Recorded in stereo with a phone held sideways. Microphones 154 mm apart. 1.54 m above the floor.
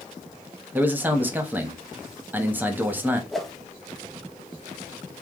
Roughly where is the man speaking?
Centre.